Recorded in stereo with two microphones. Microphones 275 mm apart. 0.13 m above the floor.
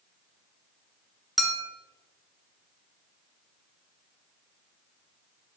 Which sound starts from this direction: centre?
A clink, at 1.4 s.